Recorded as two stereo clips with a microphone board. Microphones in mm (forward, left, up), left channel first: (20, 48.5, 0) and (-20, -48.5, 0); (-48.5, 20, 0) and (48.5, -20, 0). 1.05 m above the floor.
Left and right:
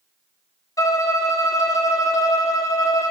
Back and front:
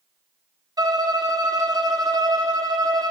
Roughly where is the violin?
Ahead.